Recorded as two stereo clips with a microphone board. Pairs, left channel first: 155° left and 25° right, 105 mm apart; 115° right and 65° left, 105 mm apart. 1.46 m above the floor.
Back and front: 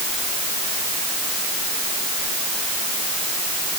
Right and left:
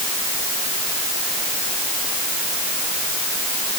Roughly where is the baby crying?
I don't hear a baby crying.